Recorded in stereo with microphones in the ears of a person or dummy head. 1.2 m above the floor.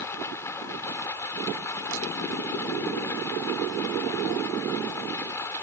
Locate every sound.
0.0 s running water: 15° left (ahead or behind)